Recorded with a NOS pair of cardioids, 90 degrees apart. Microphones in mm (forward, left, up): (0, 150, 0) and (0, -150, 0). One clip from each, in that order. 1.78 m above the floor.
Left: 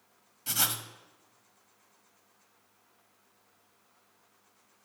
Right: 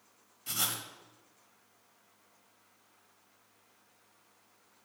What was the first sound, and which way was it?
Writing, 30° left.